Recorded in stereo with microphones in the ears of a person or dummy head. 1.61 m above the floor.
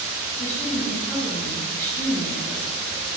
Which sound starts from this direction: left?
A woman speaking, at 0.4 s.